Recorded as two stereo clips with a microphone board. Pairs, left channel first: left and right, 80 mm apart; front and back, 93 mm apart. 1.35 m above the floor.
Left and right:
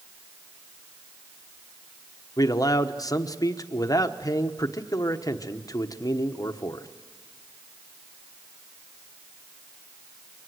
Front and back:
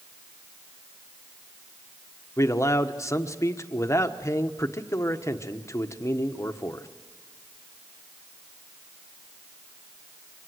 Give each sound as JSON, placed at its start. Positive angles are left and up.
{"t": 2.4, "sound": "a man speaking", "azimuth_deg": 55, "distance_m": 1.2}